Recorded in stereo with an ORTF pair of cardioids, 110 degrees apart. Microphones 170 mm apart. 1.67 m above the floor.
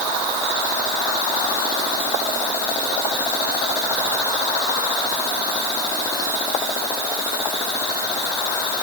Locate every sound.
Only background noise.